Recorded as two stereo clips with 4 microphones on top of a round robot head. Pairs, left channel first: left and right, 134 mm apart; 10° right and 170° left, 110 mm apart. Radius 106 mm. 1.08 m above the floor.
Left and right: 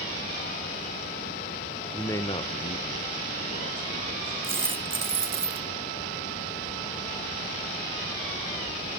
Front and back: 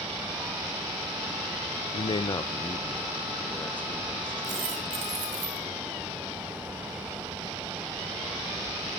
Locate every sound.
1.9 s a man speaking: 10° left, 0.8 m; by 4.8 s 70° left, 3 m
4.4 s a dropped coin: 160° right, 1.6 m